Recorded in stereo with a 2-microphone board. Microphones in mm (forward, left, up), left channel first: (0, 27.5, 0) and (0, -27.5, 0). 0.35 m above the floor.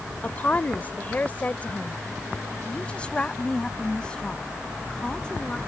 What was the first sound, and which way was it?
A woman speaking, 30° left (ahead or behind).